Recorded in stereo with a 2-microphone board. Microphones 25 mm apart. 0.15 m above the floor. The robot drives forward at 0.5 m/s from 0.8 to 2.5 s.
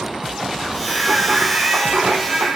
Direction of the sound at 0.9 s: 60° right (ahead or behind).